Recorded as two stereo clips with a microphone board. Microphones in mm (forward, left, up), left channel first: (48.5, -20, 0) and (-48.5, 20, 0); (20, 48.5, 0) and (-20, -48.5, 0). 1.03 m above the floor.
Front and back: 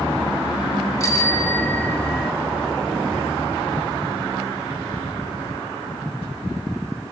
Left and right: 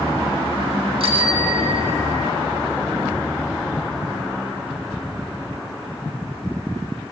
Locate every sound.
1.0 s a bicycle bell: 85° right, 2 m; by 2.3 s 110° right, 1.1 m